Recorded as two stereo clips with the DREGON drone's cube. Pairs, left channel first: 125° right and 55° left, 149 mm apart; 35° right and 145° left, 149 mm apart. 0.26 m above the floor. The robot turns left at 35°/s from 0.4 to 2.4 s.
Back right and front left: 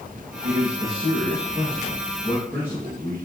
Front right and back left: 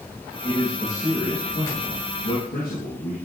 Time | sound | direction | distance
0.4 | a man speaking | 45° left | 4.5 m